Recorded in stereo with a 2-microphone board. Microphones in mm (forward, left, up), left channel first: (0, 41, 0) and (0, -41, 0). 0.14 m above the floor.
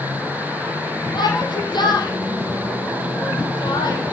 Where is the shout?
65° left (ahead or behind), 6 m.